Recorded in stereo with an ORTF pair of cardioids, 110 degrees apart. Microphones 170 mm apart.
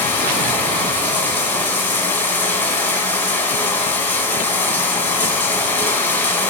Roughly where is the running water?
Ahead.